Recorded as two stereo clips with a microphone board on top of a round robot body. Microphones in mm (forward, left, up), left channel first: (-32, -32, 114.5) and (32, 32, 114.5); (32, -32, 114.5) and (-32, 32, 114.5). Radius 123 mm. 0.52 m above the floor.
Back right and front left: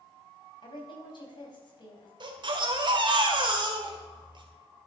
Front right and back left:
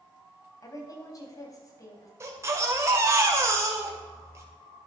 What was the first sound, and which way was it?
A woman speaking, 100° right.